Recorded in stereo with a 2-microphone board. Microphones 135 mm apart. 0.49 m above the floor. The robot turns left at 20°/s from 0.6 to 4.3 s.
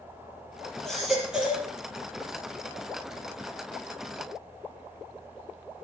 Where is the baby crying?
5° left (ahead or behind), 5 m; by 1.7 s 15° right (ahead or behind), 5 m.